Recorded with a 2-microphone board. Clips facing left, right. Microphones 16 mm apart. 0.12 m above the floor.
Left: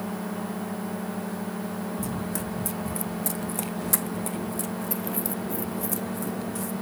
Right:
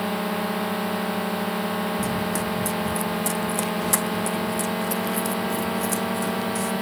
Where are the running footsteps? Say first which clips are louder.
Right 6 dB; 15° right (ahead or behind); by 6.7 s 30° right (ahead or behind).